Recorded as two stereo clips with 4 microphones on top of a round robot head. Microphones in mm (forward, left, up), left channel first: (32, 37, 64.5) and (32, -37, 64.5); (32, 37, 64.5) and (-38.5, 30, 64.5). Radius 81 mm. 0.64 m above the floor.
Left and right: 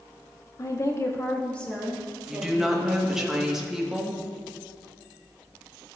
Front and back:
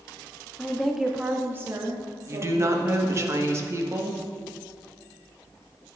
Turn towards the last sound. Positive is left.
turn(degrees=-170)